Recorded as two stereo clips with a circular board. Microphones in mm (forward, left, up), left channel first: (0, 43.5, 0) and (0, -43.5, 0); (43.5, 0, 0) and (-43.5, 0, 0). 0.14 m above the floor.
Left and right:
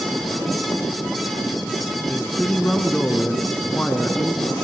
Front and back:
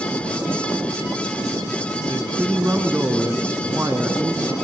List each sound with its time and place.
2.1 s a man speaking: 145° left, 1.1 m